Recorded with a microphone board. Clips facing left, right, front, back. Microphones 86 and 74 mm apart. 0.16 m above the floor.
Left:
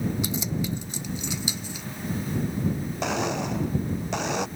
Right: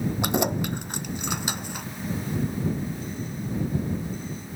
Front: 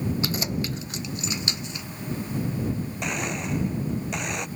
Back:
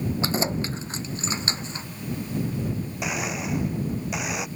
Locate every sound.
0.2 s keys jangling: 120° right; by 1.9 s 125° right
3.0 s a blender: 95° left